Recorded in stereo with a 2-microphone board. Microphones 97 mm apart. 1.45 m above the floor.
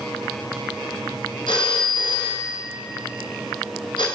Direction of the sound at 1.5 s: 55° left (ahead or behind).